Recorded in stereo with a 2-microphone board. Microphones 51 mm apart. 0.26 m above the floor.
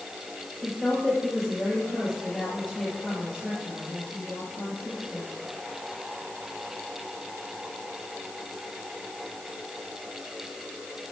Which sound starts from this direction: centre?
A woman speaking, at 0.6 s.